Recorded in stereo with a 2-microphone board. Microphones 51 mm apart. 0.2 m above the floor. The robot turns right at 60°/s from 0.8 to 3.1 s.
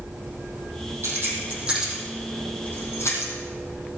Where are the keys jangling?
60° right (ahead or behind), 5 m; by 3.3 s 65° left (ahead or behind), 5 m.